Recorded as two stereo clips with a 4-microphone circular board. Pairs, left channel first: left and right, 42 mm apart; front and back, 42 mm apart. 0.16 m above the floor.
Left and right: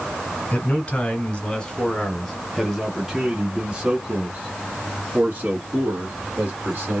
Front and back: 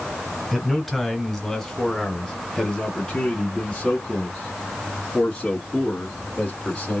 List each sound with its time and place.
0.5 s a man speaking: 90° left, 1.8 m; by 7.0 s 60° right, 3 m